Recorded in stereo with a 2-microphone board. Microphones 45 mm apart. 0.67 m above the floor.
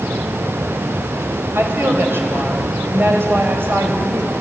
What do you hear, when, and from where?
1.6 s a woman speaking: 55° right (ahead or behind), 3.5 m